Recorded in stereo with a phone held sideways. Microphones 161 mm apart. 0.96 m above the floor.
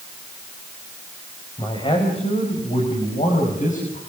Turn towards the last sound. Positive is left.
turn(degrees=60)  # may be behind; listen again after turning